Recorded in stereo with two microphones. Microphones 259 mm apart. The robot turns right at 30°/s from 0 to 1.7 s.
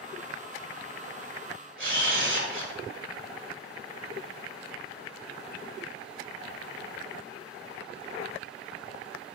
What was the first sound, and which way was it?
A camera shutter, 50° right (ahead or behind).